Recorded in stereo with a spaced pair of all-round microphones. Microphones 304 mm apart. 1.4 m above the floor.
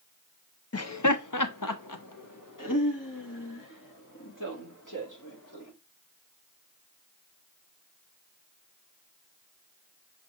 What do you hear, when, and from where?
0.7 s laughter: 45° left (ahead or behind), 0.7 m; by 5.7 s 70° left (ahead or behind), 4 m